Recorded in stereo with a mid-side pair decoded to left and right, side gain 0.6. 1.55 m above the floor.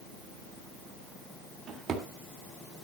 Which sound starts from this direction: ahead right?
A drawer, at 1.7 s.